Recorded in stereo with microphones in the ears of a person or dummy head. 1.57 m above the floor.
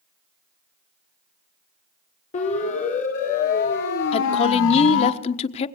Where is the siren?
40° left (ahead or behind), 4.5 m; by 5.1 s 80° left, 2 m.